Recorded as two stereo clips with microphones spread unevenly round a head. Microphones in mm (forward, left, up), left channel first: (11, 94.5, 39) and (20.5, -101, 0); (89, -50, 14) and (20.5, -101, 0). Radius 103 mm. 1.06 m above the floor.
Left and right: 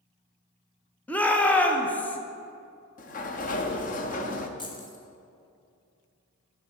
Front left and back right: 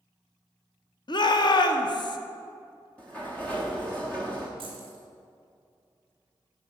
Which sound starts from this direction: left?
A sliding door, at 3.0 s.